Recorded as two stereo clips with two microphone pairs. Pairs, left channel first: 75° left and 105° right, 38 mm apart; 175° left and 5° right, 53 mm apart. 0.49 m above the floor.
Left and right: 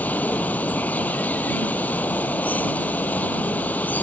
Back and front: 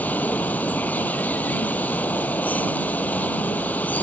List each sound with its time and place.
0.0 s running water: 115° left